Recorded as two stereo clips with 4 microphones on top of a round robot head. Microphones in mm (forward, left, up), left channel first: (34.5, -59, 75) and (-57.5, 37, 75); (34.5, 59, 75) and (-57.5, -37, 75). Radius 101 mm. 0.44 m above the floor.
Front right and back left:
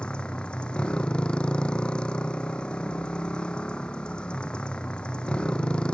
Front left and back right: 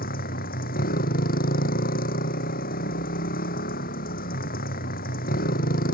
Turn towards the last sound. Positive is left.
turn(degrees=35)